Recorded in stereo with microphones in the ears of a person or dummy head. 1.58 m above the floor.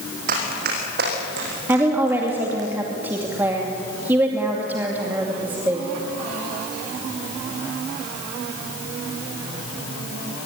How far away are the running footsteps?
About 5 m.